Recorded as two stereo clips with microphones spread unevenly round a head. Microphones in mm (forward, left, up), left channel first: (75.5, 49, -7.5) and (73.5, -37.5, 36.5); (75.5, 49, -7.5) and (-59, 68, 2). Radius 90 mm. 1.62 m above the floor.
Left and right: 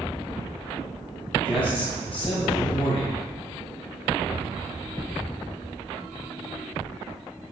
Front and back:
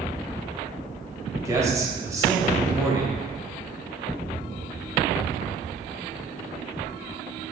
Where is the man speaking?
105° left, 1.1 m.